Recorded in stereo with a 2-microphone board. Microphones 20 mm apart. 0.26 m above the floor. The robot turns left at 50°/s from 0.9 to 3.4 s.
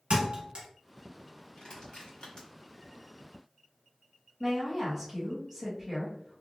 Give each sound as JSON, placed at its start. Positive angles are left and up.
{"t": 0.1, "sound": "a thud", "side_deg": -65, "distance_m": 1.2}
{"t": 1.6, "sound": "crushing", "side_deg": 55, "distance_m": 1.8}
{"t": 4.4, "sound": "a woman speaking", "side_deg": 0, "distance_m": 1.5}